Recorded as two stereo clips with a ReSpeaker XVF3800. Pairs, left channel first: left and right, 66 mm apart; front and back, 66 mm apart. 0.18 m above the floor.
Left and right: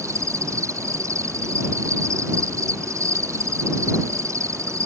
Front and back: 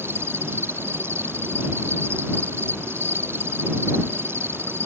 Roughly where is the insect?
Behind right.